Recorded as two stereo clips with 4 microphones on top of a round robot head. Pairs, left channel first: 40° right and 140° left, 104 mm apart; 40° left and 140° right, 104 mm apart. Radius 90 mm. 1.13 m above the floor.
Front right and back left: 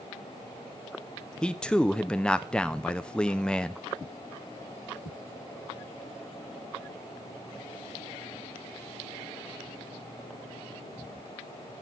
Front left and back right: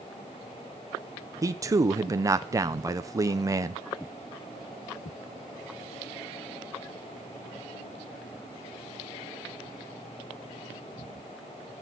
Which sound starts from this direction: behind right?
A man speaking, at 1.4 s.